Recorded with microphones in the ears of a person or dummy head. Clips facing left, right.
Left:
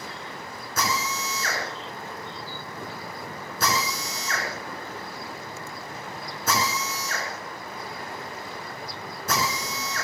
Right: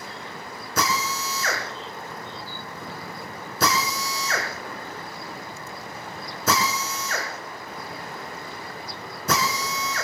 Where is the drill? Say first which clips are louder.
Right 2 dB; 70° right (ahead or behind), 6.5 m.